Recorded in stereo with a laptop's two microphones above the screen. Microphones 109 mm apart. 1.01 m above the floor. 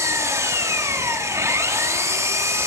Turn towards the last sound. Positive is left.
turn(degrees=-25)  # may be behind; listen again after turning